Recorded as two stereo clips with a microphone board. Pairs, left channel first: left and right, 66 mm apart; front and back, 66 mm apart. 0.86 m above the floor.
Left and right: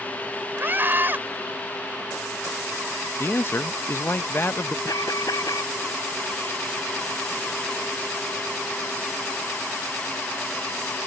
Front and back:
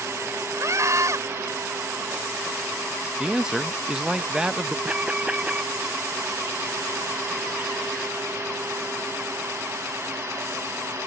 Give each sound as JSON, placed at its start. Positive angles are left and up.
{"t": 0.6, "sound": "a scream", "azimuth_deg": -145}
{"t": 3.2, "sound": "a man speaking", "azimuth_deg": 110}
{"t": 4.8, "sound": "an alarm", "azimuth_deg": 110}